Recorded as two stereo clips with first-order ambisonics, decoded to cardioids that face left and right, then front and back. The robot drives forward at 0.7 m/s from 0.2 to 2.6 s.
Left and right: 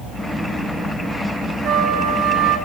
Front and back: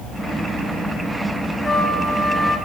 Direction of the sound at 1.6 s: 90° right.